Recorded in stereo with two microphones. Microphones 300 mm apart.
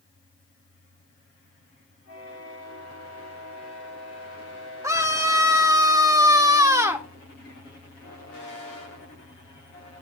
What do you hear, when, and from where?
4.8 s a scream: 10° right (ahead or behind), 1.8 m